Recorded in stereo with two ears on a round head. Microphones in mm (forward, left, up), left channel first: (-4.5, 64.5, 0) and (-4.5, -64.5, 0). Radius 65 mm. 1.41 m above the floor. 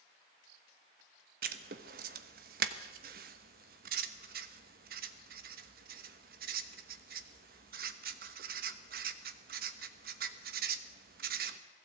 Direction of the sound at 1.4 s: 65° right (ahead or behind).